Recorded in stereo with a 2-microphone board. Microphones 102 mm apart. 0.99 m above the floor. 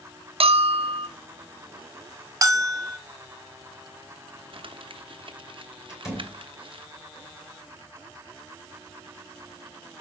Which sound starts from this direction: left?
A door slam, at 5.9 s.